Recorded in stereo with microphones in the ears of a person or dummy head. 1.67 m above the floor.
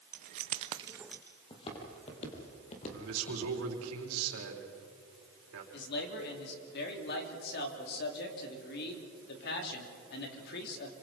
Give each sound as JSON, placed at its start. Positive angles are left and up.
{"t": 0.1, "sound": "keys jangling", "side_deg": -45, "distance_m": 0.9}
{"t": 1.5, "sound": "footsteps", "side_deg": 30, "distance_m": 3.5}
{"t": 2.9, "sound": "a man speaking", "side_deg": -85, "distance_m": 4.0}
{"t": 5.7, "sound": "a man speaking", "side_deg": 60, "distance_m": 3.5}